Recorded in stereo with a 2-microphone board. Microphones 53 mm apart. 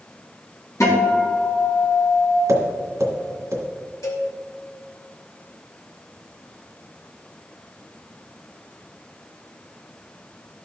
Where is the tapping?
75° right (ahead or behind), 2.0 m.